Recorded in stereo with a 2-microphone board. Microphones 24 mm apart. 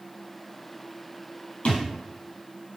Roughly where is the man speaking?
No man speaking in this recording.